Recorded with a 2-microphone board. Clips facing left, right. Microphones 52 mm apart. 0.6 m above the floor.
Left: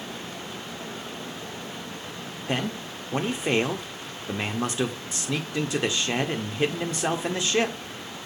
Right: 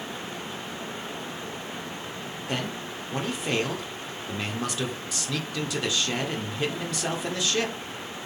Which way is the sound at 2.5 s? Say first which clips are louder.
Left 3 dB; 30° left (ahead or behind).